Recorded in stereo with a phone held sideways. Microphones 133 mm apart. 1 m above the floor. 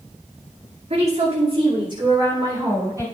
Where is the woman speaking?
60° right (ahead or behind), 2.5 m; by 3.0 s 25° right (ahead or behind), 4.5 m.